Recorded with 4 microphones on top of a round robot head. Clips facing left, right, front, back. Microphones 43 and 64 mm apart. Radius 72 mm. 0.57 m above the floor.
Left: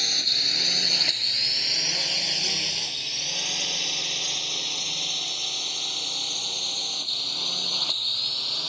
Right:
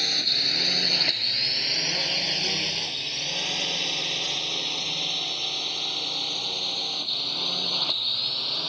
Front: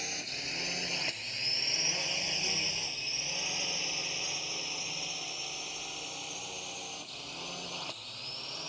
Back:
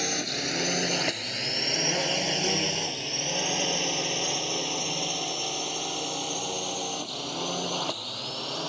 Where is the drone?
170° right.